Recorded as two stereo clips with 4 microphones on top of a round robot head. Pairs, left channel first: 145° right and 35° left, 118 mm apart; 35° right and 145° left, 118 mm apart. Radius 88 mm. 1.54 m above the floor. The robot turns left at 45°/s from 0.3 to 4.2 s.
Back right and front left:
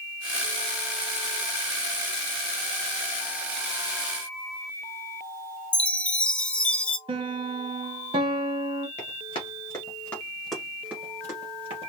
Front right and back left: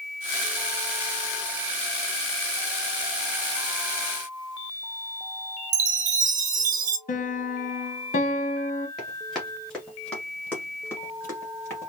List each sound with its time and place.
5.7 s a chime: 135° left, 0.7 m
7.1 s a piano: 15° right, 0.9 m
9.0 s running footsteps: 125° right, 1.7 m; by 11.9 s 25° left, 1.7 m